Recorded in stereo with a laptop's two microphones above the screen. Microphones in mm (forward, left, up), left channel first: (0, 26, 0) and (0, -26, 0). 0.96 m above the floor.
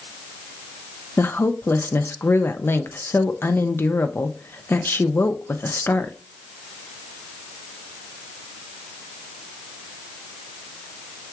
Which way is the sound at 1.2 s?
50° left (ahead or behind).